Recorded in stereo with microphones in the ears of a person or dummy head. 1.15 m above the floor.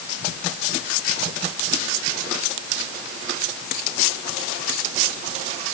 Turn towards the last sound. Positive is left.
No sound to turn to.